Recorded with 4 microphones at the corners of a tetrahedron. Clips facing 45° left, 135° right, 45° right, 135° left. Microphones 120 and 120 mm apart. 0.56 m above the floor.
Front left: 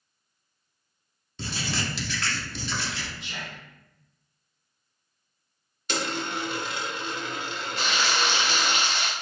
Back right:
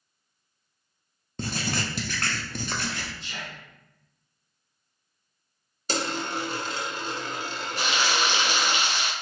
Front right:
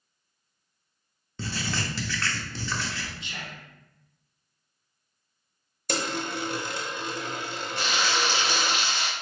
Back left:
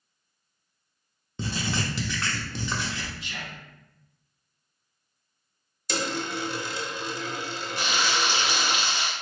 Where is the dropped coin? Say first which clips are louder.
Back right 1 dB, even; 80° right, 0.6 m.